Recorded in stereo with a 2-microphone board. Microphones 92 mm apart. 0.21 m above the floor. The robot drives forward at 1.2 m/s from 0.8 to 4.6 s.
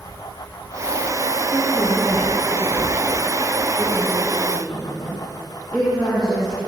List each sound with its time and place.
1.5 s a woman speaking: 5° left (ahead or behind), 3 m